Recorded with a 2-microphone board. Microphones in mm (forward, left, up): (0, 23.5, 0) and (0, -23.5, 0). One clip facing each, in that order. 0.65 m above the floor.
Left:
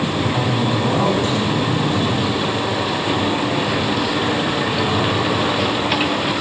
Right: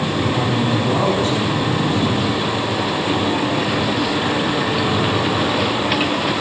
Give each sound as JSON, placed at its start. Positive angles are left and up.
{"t": 0.2, "sound": "a man speaking", "side_deg": 55, "distance_m": 5.5}